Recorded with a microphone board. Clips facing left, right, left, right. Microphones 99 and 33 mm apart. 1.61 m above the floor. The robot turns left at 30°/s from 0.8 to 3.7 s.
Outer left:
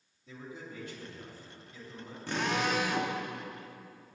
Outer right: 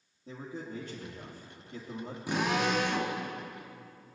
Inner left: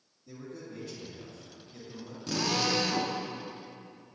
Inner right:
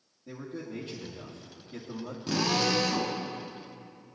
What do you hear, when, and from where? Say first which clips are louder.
0.3 s a man speaking: outer right 4 dB, inner right 4 dB; 50° right, 2 m; by 2.2 s 90° right, 2 m
2.3 s a drill: outer right 2 dB, inner right 2 dB; 15° right (ahead or behind), 1.3 m; by 3.1 s 15° left (ahead or behind), 1.3 m